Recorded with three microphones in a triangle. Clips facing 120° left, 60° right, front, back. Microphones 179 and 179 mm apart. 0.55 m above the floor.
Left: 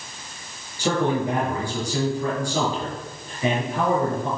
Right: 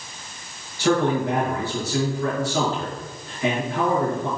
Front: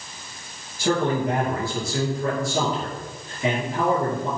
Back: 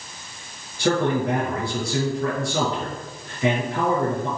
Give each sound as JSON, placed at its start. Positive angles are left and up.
{"t": 0.8, "sound": "a man speaking", "azimuth_deg": -160, "distance_m": 6.5}